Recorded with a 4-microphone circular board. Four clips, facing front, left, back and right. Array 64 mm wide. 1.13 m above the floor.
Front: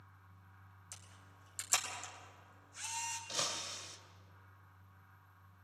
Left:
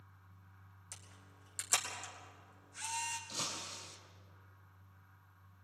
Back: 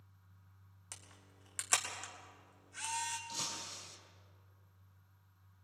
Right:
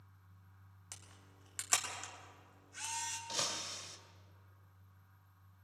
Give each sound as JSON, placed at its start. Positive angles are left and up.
{"t": 0.9, "sound": "a camera shutter", "azimuth_deg": -145, "distance_m": 3.5}
{"t": 3.3, "sound": "breaking glass", "azimuth_deg": -45, "distance_m": 2.0}